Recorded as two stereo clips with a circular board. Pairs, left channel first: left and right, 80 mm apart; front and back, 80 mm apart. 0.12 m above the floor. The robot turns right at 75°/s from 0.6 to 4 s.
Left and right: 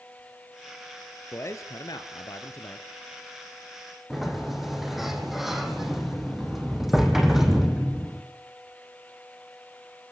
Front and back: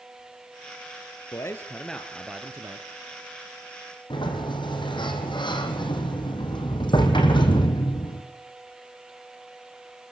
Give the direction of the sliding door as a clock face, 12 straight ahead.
12 o'clock.